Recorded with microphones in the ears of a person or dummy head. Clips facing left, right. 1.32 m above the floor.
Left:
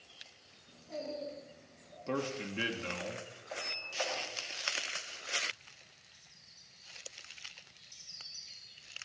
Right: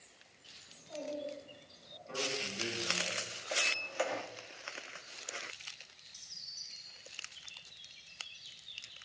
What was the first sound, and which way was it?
A child speaking, 35° left (ahead or behind).